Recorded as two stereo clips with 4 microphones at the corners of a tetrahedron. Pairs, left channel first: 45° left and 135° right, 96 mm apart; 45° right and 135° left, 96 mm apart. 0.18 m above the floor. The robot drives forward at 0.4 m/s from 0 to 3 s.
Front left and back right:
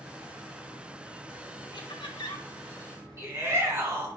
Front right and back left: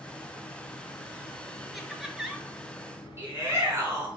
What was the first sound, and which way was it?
Laughter, 45° left.